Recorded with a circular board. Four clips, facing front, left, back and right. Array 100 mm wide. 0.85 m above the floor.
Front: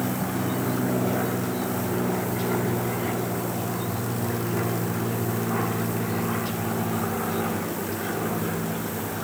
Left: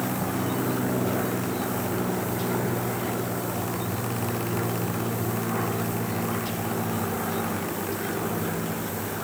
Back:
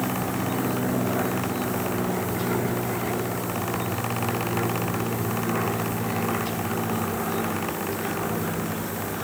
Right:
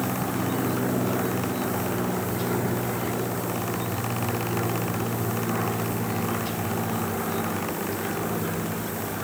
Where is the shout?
No shout in this recording.